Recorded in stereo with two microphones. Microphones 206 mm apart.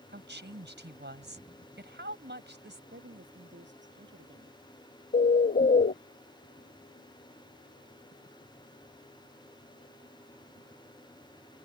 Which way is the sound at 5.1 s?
45° left (ahead or behind).